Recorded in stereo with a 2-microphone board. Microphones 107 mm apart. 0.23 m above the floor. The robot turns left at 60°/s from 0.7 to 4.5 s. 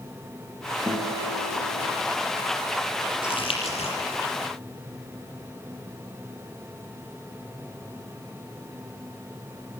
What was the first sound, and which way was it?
A guitar, 20° right.